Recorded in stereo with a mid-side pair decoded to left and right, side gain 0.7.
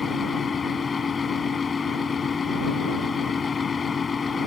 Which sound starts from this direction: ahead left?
A fan, at 0.0 s.